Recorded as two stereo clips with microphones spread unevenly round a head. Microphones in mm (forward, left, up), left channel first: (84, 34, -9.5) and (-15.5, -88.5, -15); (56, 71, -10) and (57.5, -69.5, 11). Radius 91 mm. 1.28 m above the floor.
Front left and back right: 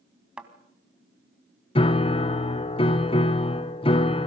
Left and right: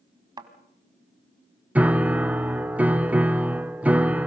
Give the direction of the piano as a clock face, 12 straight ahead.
12 o'clock.